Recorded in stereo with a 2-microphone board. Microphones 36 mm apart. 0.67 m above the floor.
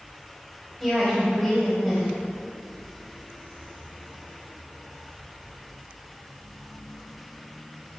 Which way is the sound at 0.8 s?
10° left (ahead or behind).